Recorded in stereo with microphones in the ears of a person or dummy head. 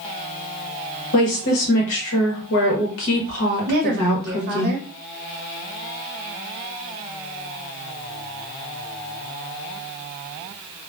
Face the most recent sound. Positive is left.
turn(degrees=-50)  # may be behind; listen again after turning